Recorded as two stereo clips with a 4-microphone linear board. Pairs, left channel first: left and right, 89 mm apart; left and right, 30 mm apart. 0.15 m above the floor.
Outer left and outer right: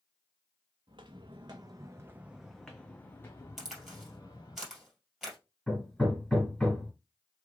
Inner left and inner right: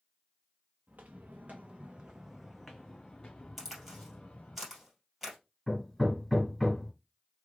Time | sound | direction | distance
0.9 | footsteps | 70° right (ahead or behind) | 0.9 m
3.6 | a crack | 5° right (ahead or behind) | 2.5 m
5.7 | hammering | 5° left (ahead or behind) | 1.5 m